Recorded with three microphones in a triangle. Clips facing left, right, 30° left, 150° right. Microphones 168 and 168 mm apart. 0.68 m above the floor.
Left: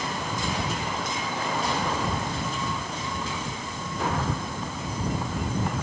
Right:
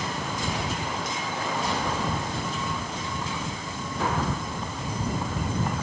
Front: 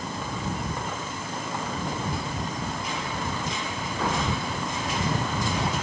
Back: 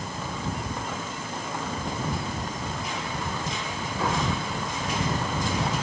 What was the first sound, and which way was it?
Only background noise.